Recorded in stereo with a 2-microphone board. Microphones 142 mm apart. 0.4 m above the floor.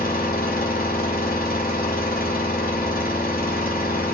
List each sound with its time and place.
0.0 s an engine running: 85° left, 0.9 m